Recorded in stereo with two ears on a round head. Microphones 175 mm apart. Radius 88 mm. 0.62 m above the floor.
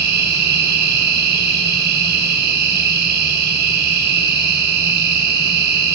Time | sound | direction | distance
0.0 | an insect | 55° right (ahead or behind) | 4.5 m